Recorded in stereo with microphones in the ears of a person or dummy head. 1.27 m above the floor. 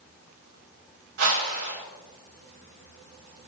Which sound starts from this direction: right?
A whoosh, at 1.2 s.